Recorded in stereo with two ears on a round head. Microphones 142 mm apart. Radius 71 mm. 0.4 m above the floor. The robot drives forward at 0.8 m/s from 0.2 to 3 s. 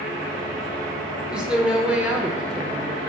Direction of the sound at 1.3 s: 5° right (ahead or behind).